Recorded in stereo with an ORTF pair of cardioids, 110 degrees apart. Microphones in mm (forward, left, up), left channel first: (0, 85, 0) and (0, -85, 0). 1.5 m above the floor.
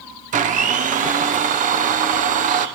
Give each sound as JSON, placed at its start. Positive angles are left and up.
{"t": 0.3, "sound": "a blender", "azimuth_deg": -50, "distance_m": 0.8}